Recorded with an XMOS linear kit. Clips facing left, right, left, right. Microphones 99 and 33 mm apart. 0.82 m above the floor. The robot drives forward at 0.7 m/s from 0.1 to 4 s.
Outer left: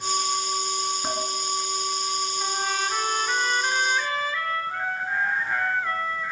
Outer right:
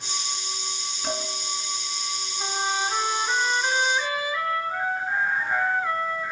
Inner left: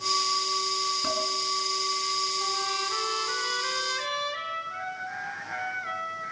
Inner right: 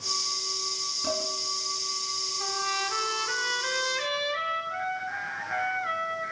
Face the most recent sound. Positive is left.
turn(degrees=-10)  # may be behind; listen again after turning